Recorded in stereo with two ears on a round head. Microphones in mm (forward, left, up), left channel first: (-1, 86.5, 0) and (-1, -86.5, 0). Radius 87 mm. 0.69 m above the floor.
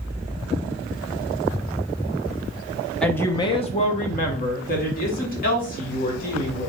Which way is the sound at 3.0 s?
5° left (ahead or behind).